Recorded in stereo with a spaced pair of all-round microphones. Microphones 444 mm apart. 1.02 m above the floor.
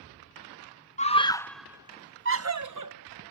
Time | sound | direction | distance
1.0 | a scream | 15° left (ahead or behind) | ?